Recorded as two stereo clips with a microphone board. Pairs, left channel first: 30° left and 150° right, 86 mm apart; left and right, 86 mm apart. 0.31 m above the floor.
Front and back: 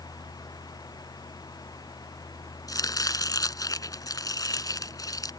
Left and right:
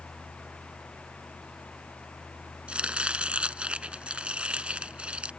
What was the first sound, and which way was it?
Chopping, 10° right.